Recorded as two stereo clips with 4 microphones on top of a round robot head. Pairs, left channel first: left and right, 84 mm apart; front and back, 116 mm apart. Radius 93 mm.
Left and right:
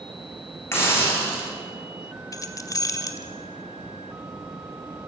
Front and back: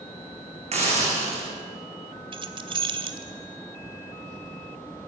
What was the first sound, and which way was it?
A hiss, 150° left.